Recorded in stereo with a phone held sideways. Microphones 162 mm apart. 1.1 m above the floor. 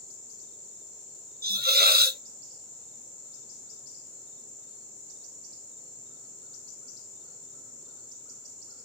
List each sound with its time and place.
1.4 s a hiss: 70° right (ahead or behind), 0.8 m